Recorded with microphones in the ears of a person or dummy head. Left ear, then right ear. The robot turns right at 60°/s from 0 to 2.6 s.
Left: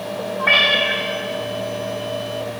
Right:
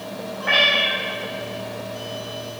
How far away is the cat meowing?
About 1.4 m.